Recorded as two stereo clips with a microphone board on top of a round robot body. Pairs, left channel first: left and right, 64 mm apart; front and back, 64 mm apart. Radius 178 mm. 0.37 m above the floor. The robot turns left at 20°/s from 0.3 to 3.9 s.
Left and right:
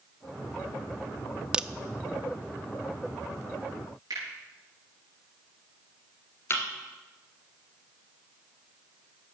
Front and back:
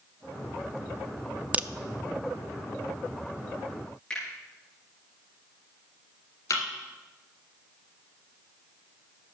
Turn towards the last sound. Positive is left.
turn(degrees=35)